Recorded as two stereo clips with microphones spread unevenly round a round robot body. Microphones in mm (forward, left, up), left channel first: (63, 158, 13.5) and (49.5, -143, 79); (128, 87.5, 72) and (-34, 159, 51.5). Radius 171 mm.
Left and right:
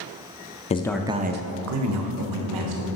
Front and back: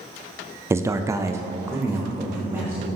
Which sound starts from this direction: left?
A man speaking, at 0.7 s.